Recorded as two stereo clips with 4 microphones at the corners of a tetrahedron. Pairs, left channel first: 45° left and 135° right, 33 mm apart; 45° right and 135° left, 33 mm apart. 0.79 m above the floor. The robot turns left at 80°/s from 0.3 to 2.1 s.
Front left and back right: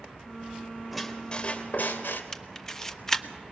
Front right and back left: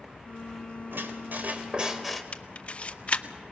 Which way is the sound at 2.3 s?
20° right.